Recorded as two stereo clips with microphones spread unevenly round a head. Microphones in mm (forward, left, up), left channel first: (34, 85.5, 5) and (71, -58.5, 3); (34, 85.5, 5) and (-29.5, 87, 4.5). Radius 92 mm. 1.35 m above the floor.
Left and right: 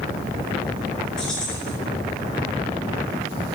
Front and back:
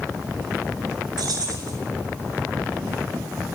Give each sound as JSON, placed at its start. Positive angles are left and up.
{"t": 1.2, "sound": "keys jangling", "azimuth_deg": -170, "distance_m": 4.5}